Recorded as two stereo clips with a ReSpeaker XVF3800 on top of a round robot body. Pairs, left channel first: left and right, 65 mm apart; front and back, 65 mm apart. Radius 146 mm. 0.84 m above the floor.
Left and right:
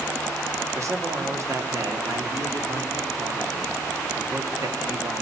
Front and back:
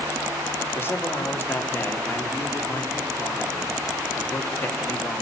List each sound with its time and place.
0.8 s a man speaking: 55° right, 2.5 m